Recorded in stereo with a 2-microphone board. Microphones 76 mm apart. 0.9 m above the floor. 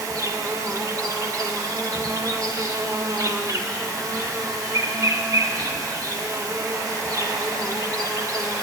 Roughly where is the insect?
Right.